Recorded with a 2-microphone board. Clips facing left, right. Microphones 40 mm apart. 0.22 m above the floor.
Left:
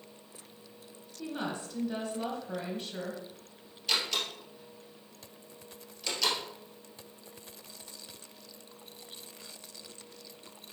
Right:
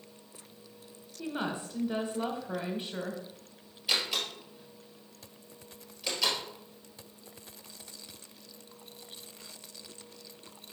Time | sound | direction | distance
1.2 | a woman speaking | 20° right (ahead or behind) | 1.2 m
3.9 | a door slam | 10° right (ahead or behind) | 2.5 m